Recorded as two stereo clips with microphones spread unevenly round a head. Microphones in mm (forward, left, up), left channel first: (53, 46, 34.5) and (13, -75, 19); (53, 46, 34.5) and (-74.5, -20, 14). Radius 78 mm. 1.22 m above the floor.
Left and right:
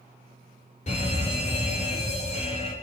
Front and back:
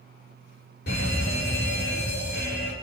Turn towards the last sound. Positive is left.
turn(degrees=40)